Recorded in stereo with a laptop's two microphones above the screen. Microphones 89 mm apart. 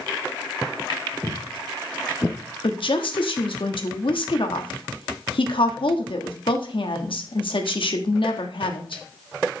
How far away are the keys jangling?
I don't hear keys jangling.